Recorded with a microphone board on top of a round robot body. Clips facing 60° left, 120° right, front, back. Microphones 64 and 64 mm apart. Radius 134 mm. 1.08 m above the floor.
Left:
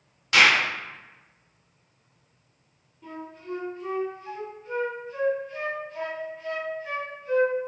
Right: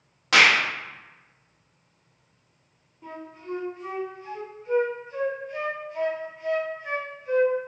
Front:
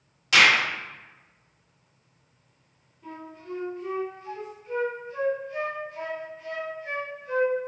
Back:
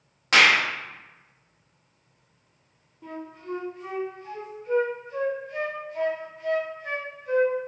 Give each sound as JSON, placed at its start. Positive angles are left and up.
{"t": 0.3, "sound": "a clap", "azimuth_deg": -135, "distance_m": 1.0}
{"t": 3.0, "sound": "a flute", "azimuth_deg": 170, "distance_m": 1.8}